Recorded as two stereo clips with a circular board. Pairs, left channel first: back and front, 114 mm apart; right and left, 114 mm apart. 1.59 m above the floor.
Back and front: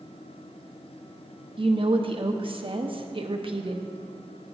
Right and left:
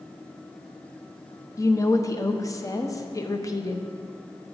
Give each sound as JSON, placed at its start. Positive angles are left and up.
{"t": 1.6, "sound": "a woman speaking", "azimuth_deg": -35, "distance_m": 0.7}